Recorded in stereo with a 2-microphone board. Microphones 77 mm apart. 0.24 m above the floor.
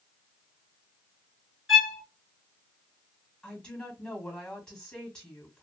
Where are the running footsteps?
I don't hear running footsteps.